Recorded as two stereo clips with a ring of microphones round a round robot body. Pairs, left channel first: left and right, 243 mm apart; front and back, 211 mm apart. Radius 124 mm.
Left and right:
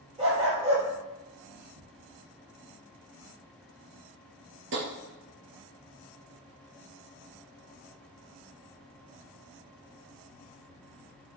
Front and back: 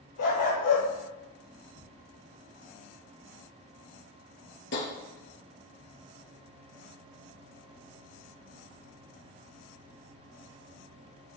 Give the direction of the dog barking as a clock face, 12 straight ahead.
1 o'clock.